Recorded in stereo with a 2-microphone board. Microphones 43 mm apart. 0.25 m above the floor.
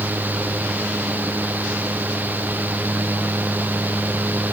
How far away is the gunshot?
No gunshot in this recording.